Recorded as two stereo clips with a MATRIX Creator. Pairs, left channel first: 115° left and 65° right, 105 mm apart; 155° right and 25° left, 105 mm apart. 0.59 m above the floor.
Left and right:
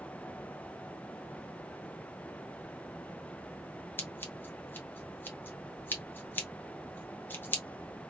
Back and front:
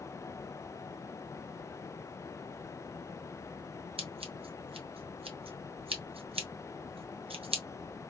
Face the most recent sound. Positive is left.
turn(degrees=40)